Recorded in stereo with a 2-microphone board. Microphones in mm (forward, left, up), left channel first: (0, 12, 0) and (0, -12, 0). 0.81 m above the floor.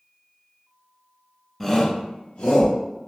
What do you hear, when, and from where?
1.6 s a shout: 5° left (ahead or behind), 0.5 m; by 2.8 s 55° left (ahead or behind), 0.9 m